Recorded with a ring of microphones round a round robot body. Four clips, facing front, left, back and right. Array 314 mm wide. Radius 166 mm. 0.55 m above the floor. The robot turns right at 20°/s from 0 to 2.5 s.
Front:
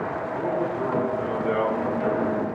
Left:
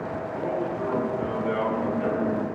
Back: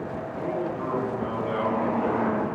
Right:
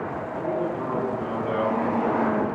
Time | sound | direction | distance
0.3 | a man speaking | straight ahead | 9.5 m